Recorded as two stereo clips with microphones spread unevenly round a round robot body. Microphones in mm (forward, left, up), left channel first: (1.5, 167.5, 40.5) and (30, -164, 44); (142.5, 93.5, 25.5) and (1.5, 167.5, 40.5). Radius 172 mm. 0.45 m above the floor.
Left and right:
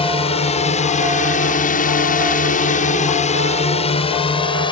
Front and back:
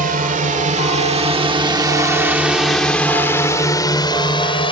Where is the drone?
165° left; by 4.7 s 20° left.